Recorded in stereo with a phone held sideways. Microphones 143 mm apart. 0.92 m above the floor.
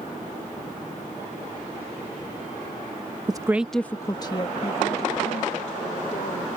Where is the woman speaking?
30° right (ahead or behind); by 6.5 s 55° left (ahead or behind).